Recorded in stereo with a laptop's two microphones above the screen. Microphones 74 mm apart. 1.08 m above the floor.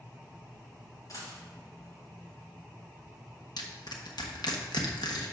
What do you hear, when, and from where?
1.1 s a dropped coin: 50° left (ahead or behind), 2.5 m
3.6 s crushing: 70° left (ahead or behind), 1.1 m